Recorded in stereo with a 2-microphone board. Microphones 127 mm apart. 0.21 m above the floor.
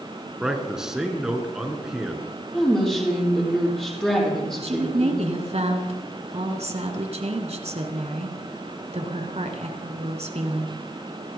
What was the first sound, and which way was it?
A man speaking, 5° right (ahead or behind).